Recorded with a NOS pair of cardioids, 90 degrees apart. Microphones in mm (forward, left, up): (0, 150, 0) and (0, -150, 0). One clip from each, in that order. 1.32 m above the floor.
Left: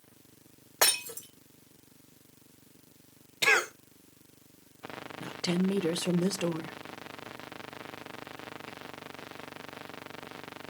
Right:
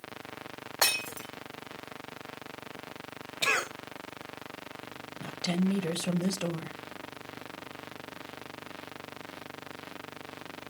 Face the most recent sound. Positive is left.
turn(degrees=15)